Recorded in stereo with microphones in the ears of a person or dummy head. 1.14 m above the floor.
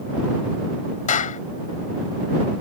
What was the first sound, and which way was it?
A clap, 45° left (ahead or behind).